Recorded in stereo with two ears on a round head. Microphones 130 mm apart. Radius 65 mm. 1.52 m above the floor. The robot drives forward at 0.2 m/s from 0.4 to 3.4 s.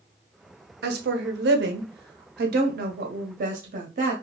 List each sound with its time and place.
0.8 s a woman speaking: 75° right (ahead or behind), 0.7 m; by 4.1 s 60° right (ahead or behind), 0.8 m